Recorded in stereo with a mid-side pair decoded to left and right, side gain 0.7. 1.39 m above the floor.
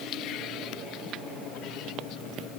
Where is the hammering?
I don't hear hammering.